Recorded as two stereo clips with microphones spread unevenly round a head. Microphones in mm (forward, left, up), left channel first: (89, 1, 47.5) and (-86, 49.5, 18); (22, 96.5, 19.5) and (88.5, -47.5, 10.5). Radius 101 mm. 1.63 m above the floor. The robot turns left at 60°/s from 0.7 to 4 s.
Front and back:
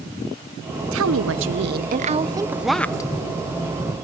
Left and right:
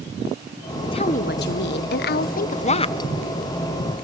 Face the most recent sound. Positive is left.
turn(degrees=-5)